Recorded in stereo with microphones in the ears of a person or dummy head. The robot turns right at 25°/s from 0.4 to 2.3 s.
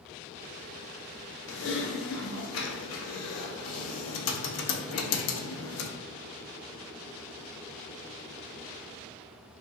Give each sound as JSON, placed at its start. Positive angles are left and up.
{"t": 1.5, "sound": "typing on a keyboard", "side_deg": 65, "distance_m": 0.7}